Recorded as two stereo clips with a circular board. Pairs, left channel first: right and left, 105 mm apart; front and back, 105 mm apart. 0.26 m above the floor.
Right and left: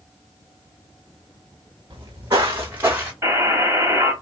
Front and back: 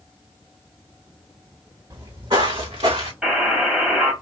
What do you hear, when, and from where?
1.9 s footsteps: 130° left, 1.3 m; by 3.1 s 160° left, 1.7 m
3.2 s a buzzer: 115° left, 1.4 m